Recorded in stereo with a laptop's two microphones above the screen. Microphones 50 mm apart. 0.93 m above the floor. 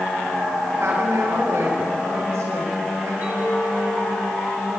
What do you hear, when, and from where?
0.8 s a woman speaking: 80° right, 5 m
3.2 s a clink: 40° right (ahead or behind), 9 m